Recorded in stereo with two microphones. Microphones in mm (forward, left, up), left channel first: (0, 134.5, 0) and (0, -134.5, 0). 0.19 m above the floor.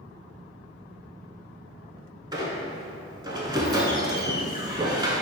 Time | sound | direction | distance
2.3 | a squeak | 15° right (ahead or behind) | 0.5 m